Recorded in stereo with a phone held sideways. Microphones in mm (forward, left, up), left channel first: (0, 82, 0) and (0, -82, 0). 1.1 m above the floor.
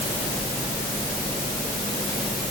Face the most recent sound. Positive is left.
No sound to turn to.